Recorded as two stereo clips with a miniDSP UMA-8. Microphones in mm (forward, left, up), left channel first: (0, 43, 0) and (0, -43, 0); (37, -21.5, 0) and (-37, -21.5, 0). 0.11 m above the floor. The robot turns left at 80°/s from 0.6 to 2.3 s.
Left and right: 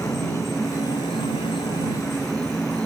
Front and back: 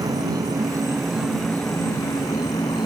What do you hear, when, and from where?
0.0 s an insect: 150° left; by 2.9 s 15° left